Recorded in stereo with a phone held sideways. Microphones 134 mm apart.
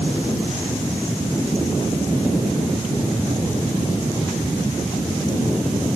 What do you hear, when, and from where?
Only background noise.